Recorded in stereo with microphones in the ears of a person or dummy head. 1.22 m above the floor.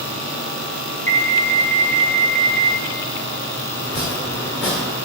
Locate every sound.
1.1 s an alarm: 25° left (ahead or behind), 1.0 m
3.8 s chopping: 5° right (ahead or behind), 1.1 m